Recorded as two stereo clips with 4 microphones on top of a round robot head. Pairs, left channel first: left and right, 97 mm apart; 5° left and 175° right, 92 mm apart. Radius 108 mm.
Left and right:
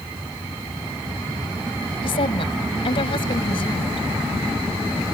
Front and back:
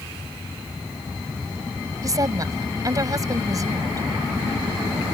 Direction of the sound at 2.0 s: 130° left.